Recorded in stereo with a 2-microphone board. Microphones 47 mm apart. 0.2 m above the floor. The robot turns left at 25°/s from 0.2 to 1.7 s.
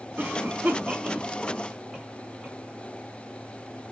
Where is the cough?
40° right (ahead or behind), 2 m; by 2.6 s 10° right (ahead or behind), 2 m.